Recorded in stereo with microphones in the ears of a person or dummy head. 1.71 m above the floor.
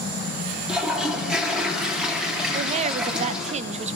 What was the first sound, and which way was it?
A toilet flushing, 5° right (ahead or behind).